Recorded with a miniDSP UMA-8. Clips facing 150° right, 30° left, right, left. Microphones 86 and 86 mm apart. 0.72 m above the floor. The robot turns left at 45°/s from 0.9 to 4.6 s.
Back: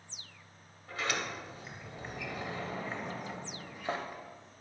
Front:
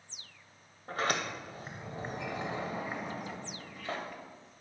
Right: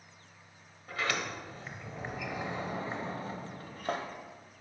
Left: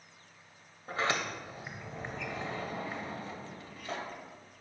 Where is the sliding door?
50° left, 0.6 m; by 4.6 s 120° right, 0.6 m.